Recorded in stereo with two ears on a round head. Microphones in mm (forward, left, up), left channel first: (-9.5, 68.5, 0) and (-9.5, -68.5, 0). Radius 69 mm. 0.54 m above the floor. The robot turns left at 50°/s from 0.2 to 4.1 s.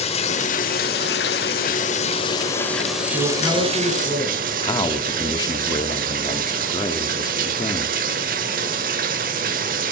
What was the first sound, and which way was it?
Running water, 135° left.